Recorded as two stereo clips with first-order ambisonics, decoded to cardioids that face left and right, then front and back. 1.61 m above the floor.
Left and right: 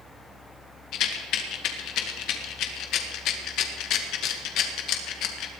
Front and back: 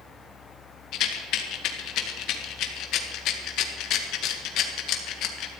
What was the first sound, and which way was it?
A rattle, 45° left.